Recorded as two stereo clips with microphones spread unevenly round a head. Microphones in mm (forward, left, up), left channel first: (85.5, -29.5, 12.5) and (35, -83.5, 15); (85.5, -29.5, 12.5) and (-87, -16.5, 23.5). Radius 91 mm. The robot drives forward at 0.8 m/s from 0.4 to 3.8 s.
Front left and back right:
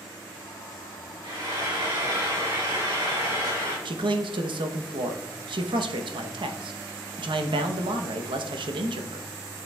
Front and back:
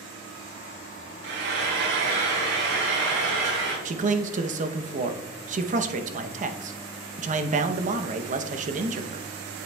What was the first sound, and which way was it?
Frying, 165° right.